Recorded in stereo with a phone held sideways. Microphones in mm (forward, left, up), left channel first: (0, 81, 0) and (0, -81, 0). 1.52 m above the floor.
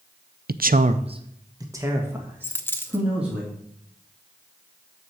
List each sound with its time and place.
0.5 s a man speaking: 70° right (ahead or behind), 0.6 m; by 3.4 s 5° right (ahead or behind), 3 m
2.4 s a dropped coin: 15° left (ahead or behind), 0.9 m